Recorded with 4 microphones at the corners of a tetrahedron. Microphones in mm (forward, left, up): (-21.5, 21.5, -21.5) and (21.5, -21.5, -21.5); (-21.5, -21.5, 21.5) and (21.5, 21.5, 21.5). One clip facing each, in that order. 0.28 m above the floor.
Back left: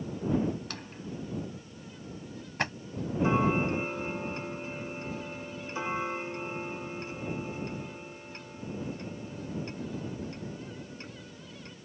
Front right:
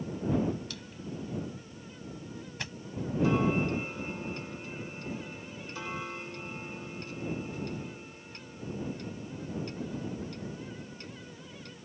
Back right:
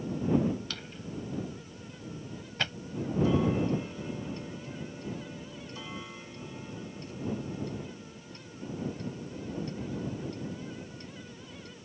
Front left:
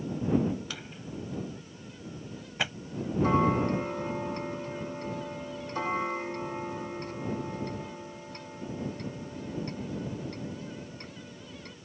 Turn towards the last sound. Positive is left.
turn(degrees=75)